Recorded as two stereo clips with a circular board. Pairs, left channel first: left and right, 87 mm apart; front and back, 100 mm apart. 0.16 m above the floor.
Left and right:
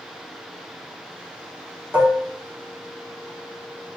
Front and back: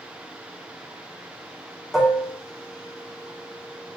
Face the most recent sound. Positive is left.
turn(degrees=-95)